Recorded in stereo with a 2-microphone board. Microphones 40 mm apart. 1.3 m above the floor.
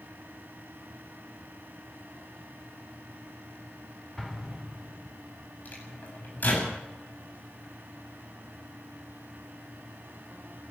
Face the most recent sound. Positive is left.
turn(degrees=50)  # may be behind; listen again after turning